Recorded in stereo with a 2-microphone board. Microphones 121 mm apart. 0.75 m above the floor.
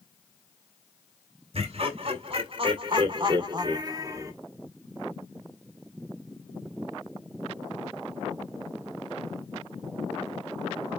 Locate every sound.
1.5 s laughter: 55° right (ahead or behind), 3.5 m; by 4.3 s 25° right (ahead or behind), 1.6 m